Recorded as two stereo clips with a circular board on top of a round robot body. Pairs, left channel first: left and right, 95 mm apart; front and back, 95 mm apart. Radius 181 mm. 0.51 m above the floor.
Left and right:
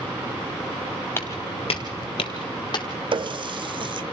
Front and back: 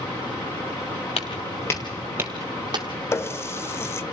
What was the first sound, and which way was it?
Footsteps, 20° left.